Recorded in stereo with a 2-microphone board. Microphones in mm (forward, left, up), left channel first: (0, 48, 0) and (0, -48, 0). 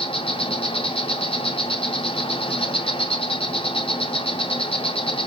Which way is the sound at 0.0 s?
70° left (ahead or behind).